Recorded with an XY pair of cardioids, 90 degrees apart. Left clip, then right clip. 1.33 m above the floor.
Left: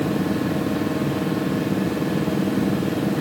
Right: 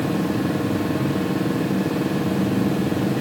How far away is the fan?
About 1.4 m.